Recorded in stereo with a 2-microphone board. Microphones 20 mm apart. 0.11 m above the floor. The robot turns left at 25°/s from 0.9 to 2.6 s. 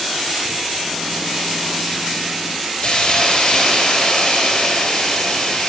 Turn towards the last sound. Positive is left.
turn(degrees=40)  # may be behind; listen again after turning